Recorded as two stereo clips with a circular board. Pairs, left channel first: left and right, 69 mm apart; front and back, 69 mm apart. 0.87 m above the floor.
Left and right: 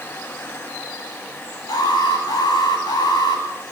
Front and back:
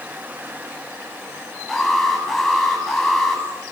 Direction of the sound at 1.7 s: 85° left.